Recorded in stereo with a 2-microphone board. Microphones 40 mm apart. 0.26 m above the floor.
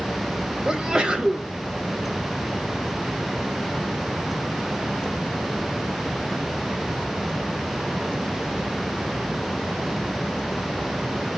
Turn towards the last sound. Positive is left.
turn(degrees=-20)  # may be behind; listen again after turning